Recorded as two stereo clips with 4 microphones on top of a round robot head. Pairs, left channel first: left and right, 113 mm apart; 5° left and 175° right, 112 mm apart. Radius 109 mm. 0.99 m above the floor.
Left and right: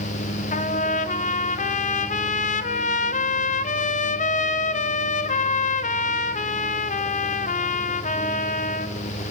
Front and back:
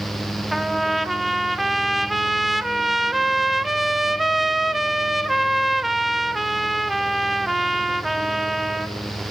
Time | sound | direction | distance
0.5 | a trumpet | 95° left | 0.8 m